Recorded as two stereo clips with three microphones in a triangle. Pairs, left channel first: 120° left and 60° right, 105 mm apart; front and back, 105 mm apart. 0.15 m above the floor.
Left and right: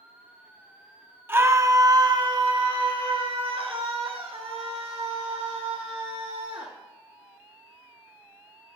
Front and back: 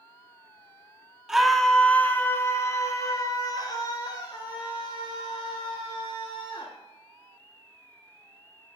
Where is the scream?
100° right, 1.7 m; by 6.7 s 40° right, 7.5 m.